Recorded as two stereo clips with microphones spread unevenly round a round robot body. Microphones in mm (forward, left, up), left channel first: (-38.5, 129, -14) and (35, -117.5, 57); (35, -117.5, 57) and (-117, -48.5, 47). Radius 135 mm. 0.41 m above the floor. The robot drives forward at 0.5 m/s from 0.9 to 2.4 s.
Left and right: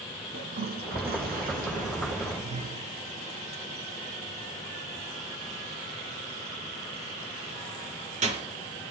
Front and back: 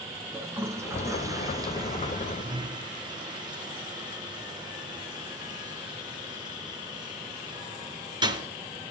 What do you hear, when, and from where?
0.3 s a toilet flushing: 130° right, 3 m; by 8.5 s 140° right, 3.5 m